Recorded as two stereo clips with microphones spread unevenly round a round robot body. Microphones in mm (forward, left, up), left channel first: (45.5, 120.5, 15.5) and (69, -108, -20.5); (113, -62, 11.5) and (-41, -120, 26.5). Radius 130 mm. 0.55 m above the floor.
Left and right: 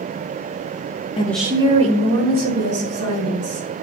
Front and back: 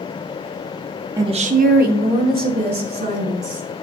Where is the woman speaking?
145° left, 0.6 m; by 3.7 s 130° right, 3.5 m.